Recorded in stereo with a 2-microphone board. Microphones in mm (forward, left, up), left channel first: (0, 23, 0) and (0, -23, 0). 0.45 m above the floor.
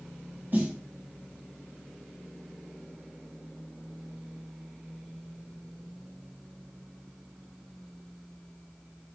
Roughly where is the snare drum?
Right.